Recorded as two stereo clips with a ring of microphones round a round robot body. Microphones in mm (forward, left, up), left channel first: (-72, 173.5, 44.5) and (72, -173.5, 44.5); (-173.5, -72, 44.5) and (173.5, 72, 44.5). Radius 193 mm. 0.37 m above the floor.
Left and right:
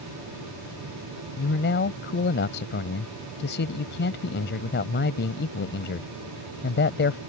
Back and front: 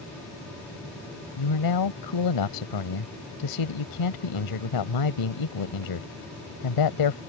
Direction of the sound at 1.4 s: 175° left.